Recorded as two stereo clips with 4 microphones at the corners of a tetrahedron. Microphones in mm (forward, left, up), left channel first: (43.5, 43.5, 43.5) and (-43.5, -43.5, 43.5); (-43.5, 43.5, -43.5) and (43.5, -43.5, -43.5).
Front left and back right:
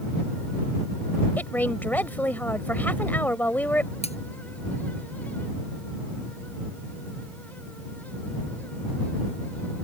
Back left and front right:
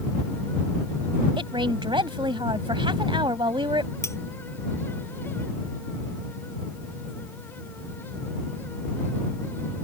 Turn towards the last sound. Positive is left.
turn(degrees=70)